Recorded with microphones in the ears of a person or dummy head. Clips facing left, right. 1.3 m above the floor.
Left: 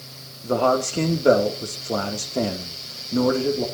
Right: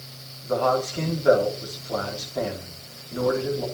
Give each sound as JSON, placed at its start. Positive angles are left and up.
{"t": 0.4, "sound": "a man speaking", "side_deg": 45, "distance_m": 2.5}